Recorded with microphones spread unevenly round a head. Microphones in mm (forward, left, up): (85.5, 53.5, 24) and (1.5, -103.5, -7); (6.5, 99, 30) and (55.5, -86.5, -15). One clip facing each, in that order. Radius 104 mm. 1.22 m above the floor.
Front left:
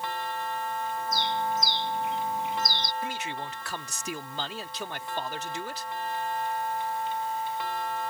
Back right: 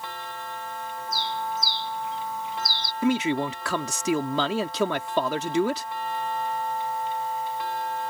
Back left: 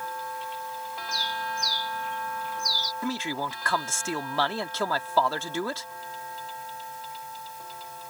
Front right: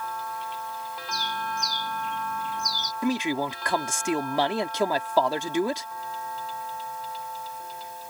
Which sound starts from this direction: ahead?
A bird, at 1.1 s.